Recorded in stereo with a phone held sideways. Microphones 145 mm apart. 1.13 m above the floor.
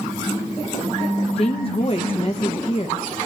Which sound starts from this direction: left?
A woman speaking, at 1.4 s.